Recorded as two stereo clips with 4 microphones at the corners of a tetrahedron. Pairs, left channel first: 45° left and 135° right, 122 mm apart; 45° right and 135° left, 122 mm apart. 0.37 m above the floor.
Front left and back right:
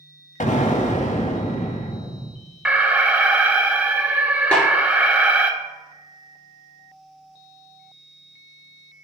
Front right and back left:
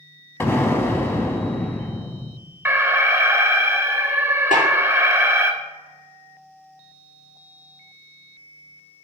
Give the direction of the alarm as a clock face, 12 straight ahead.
7 o'clock.